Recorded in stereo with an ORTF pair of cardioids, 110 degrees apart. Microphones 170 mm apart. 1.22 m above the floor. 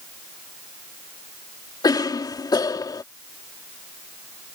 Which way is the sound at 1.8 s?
25° left.